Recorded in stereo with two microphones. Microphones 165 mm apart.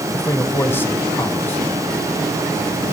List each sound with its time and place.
0.1 s a man speaking: 15° left (ahead or behind), 1.8 m